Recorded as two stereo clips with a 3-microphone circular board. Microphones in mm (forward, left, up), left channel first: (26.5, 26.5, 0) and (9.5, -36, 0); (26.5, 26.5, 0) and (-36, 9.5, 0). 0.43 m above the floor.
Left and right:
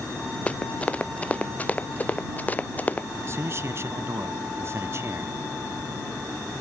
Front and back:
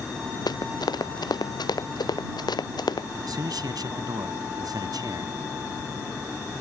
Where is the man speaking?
155° right.